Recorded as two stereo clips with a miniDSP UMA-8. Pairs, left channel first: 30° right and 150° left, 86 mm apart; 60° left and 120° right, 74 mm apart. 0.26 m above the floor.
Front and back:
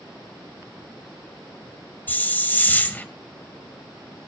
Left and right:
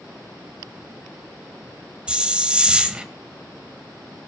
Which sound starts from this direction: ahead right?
A hiss, at 2.1 s.